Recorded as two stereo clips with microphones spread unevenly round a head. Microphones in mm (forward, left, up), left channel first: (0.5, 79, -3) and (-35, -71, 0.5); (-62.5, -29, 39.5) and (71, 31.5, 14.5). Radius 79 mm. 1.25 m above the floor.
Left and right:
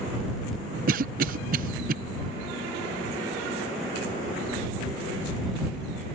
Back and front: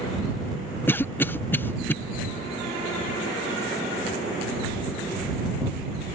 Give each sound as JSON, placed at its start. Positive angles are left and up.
{"t": 0.9, "sound": "a cough", "azimuth_deg": -75}